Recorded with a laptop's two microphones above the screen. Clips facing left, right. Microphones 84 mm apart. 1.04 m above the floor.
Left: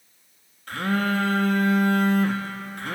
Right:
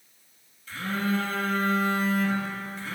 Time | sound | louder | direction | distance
0.7 | a phone buzzing | left 4 dB | 60° left (ahead or behind) | 0.6 m